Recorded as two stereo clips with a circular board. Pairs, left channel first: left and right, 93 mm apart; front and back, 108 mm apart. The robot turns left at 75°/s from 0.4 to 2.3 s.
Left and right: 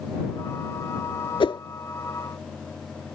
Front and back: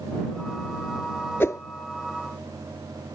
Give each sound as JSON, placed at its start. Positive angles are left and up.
{"t": 1.4, "sound": "a whoosh", "azimuth_deg": 70}